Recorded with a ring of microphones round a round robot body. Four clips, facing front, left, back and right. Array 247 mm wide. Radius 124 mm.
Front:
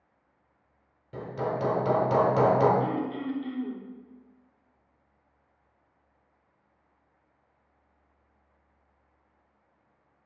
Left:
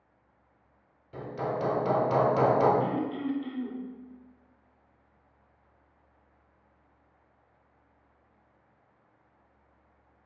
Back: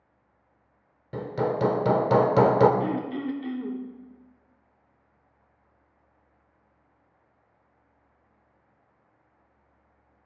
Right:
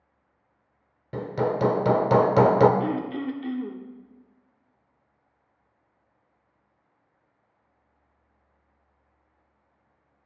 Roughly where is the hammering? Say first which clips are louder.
Right 7 dB, back 4 dB; behind right.